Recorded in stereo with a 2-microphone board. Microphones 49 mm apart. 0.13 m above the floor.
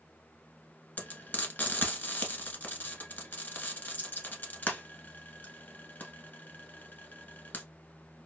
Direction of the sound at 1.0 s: 35° left (ahead or behind).